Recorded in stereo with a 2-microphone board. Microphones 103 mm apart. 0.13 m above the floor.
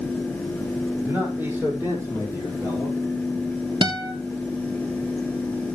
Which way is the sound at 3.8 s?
45° right (ahead or behind).